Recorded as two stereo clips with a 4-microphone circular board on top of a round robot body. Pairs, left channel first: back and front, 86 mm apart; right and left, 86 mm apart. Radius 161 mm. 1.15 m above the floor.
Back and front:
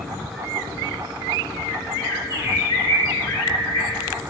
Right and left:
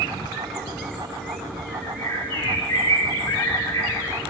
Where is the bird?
140° right, 2 m.